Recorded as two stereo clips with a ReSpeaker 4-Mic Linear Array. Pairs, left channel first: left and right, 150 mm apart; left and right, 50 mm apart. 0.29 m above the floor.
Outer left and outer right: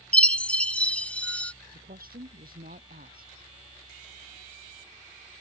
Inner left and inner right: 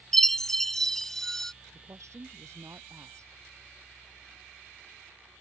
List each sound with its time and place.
0.1 s a chime: 10° left (ahead or behind)
1.7 s a woman speaking: 80° right